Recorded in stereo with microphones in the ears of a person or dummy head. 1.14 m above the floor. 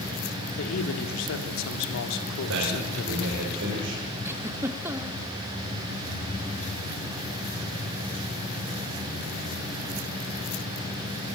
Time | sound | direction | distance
0.6 | a man speaking | 80° left | 2.5 m
2.5 | a man speaking | 75° right (ahead or behind) | 5.5 m
4.2 | a giggle | 15° right (ahead or behind) | 1.1 m